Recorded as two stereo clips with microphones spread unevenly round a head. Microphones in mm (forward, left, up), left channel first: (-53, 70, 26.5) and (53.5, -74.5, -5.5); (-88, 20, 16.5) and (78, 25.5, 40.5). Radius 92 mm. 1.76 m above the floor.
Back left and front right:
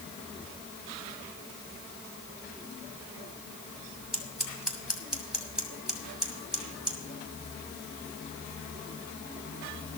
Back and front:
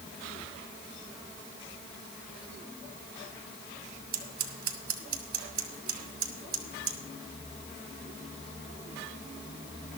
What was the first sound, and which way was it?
Scissors, 35° left.